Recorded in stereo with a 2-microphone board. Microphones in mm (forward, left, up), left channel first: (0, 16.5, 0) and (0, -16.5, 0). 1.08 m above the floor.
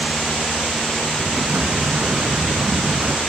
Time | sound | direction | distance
1.2 | an explosion | 60° right (ahead or behind) | ?